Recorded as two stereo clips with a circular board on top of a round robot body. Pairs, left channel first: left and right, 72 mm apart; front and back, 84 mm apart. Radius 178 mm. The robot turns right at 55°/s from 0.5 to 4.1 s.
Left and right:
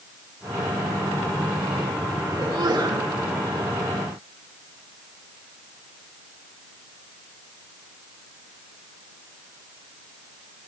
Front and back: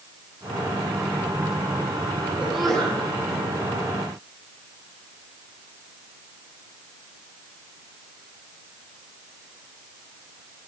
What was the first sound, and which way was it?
A sneeze, 105° right.